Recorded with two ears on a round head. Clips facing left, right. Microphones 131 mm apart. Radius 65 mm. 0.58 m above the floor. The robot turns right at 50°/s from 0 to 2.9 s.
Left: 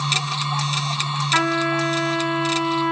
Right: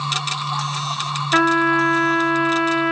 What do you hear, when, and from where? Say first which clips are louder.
1.3 s a trumpet: right 5 dB; 125° right, 1.2 m; by 2.9 s 45° right, 1.2 m